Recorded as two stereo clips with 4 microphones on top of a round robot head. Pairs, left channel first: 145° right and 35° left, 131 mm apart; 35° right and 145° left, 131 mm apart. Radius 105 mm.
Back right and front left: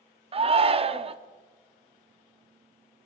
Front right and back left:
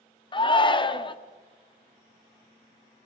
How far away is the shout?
About 1.2 m.